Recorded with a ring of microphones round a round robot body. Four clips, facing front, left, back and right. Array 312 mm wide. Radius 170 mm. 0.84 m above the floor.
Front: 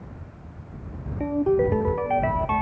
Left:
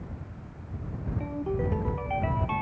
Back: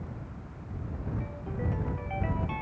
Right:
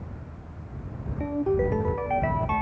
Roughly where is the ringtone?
Ahead.